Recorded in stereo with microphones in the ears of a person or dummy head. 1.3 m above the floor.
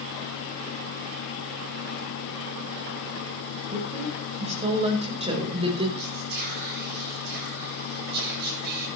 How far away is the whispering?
About 10 m.